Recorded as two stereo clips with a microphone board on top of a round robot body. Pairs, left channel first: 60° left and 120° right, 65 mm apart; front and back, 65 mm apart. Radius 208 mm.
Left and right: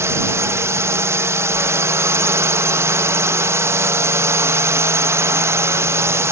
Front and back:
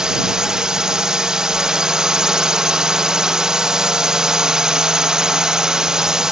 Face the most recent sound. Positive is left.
turn(degrees=-105)